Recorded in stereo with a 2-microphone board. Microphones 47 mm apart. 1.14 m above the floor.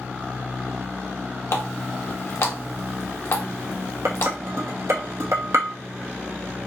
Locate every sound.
1.5 s a running tap: 65° left (ahead or behind), 0.8 m
4.0 s dishes clattering: 65° right (ahead or behind), 0.8 m